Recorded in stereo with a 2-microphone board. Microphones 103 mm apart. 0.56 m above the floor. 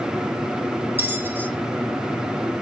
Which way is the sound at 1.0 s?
20° right (ahead or behind).